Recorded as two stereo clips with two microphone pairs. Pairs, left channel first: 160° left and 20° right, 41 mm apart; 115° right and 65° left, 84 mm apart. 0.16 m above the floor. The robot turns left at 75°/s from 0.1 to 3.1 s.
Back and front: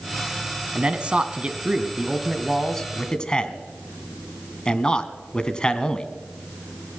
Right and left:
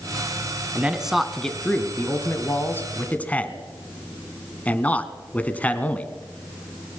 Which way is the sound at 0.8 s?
15° left.